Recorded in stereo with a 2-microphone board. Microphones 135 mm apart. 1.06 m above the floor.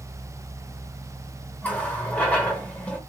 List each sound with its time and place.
1.6 s a running tap: 10° left (ahead or behind), 1.3 m